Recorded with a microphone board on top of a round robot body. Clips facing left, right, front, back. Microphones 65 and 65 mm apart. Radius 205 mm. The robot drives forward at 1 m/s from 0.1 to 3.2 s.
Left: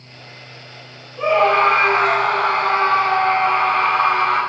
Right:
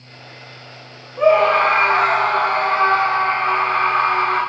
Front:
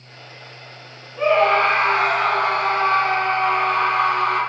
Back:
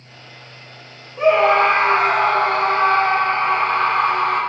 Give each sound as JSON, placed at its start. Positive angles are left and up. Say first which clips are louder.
{"t": 1.2, "sound": "a scream", "louder": "right 2 dB, back 2 dB", "azimuth_deg": -100, "distance_m": 2.5}